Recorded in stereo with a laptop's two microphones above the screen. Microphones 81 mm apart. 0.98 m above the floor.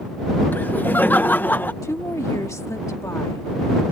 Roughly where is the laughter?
Left.